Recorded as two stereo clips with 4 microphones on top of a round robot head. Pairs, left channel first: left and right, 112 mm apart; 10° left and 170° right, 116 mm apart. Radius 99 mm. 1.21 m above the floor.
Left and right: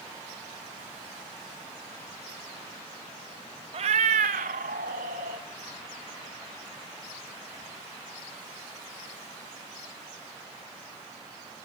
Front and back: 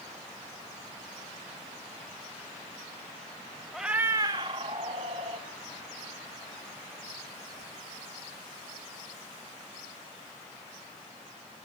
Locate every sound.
3.7 s a cat meowing: 80° right, 0.6 m; by 5.4 s 120° right, 1.3 m